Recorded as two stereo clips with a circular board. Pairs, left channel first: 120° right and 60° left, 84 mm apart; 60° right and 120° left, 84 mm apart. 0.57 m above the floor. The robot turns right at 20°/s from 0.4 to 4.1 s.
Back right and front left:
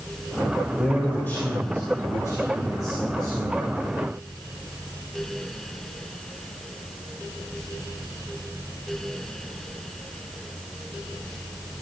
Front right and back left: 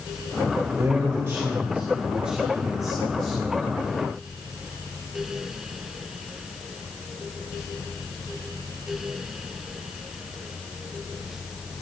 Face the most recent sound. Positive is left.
turn(degrees=-125)